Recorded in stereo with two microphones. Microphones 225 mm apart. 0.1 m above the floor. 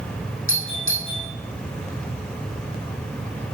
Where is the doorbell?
70° left (ahead or behind), 5.5 m.